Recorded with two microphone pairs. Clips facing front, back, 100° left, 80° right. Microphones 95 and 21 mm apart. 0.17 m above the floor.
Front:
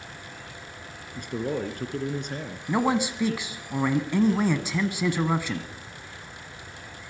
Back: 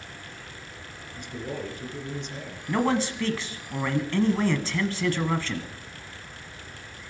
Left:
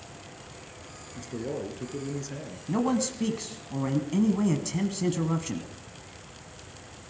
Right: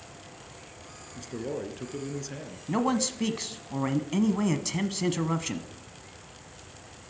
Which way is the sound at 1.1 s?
Straight ahead.